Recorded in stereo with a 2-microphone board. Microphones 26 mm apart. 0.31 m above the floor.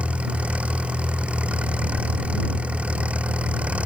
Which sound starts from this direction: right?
An engine running, at 0.0 s.